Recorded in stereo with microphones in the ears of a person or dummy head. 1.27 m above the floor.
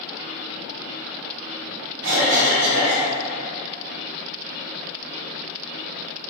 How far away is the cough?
About 1.9 m.